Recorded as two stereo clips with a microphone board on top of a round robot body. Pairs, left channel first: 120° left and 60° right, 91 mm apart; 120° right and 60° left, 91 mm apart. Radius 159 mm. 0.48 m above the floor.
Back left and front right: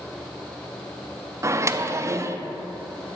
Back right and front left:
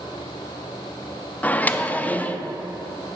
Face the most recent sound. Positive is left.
turn(degrees=-65)